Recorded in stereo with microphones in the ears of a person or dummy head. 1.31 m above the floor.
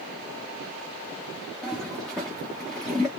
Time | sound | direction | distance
1.6 | a toilet flushing | centre (ahead or behind) | 1.1 m